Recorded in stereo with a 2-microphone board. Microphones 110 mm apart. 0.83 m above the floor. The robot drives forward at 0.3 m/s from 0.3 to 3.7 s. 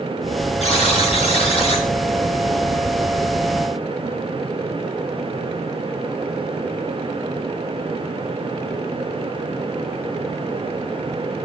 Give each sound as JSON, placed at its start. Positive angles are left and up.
{"t": 0.6, "sound": "a buzzer", "side_deg": 80, "distance_m": 4.5}